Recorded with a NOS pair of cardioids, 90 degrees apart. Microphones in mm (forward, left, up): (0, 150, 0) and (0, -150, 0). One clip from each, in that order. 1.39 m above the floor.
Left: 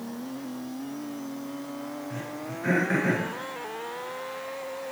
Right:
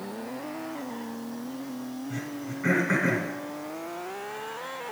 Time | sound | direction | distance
2.1 | throat clearing | 60° right | 4 m